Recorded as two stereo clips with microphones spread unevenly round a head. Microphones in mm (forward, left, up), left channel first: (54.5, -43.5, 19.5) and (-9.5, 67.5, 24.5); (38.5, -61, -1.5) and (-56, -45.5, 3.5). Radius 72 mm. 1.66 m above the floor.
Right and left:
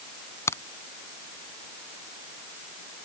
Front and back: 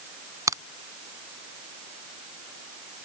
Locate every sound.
0.5 s a crack: 135° right